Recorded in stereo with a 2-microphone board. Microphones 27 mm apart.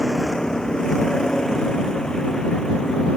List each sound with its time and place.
0.0 s a vehicle: 25° left (ahead or behind); by 3.2 s 30° left (ahead or behind)